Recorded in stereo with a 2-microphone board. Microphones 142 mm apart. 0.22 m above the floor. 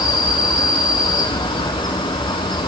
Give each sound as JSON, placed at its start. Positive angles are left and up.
{"t": 0.0, "sound": "an insect", "side_deg": 35, "distance_m": 1.6}